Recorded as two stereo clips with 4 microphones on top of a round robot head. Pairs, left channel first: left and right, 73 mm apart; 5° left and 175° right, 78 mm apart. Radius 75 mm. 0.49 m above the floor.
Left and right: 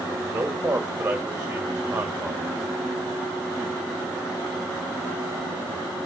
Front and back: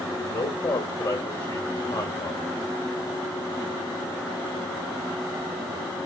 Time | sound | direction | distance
0.2 | a man speaking | 25° right | 1.9 m